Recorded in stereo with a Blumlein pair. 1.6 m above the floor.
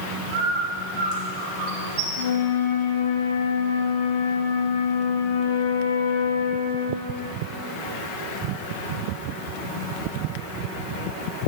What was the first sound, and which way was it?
A bird, 45° right.